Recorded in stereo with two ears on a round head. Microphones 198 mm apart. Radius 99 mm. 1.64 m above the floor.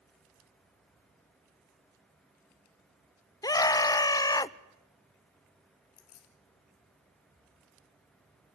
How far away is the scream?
About 0.6 m.